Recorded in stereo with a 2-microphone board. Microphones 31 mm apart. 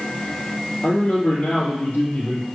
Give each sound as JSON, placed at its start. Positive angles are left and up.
{"t": 0.8, "sound": "a man speaking", "side_deg": 65, "distance_m": 3.5}